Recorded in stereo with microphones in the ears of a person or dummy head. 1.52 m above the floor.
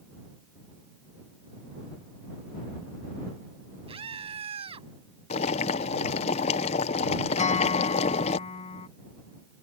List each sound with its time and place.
3.9 s a scream: 35° right (ahead or behind)
5.3 s boiling: 35° left (ahead or behind)
7.4 s a guitar: 35° left (ahead or behind)